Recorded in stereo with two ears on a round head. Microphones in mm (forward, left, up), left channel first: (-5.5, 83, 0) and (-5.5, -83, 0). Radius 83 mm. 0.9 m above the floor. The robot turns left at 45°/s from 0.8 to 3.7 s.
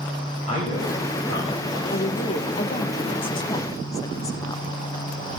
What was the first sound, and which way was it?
A man speaking, 140° left.